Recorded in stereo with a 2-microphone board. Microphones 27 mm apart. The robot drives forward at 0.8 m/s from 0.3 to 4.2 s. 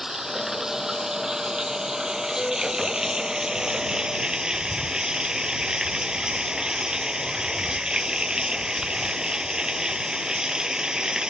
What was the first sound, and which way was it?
Running water, 20° right (ahead or behind).